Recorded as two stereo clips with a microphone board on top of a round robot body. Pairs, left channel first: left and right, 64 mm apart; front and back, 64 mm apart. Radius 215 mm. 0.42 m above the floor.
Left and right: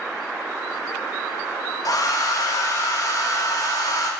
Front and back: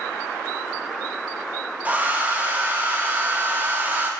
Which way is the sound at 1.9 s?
115° left.